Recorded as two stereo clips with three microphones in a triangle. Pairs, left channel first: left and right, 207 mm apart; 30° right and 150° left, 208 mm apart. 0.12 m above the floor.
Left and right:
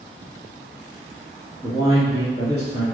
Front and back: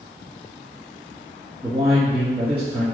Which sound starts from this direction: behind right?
A man speaking, at 1.6 s.